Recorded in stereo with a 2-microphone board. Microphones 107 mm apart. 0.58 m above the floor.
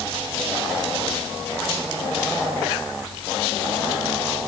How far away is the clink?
No clink in this recording.